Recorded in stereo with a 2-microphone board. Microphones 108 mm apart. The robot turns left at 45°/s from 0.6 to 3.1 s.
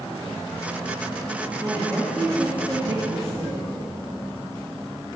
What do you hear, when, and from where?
1.6 s a woman speaking: 20° left, 1.8 m; by 3.7 s 50° right, 1.8 m